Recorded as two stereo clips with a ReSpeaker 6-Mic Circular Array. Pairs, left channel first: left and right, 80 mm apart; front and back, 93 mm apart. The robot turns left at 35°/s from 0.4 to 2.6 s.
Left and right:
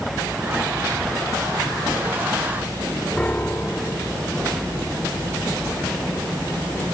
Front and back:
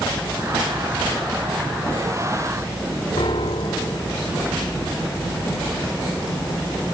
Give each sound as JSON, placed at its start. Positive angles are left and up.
{"t": 3.2, "sound": "a piano", "azimuth_deg": 15, "distance_m": 1.6}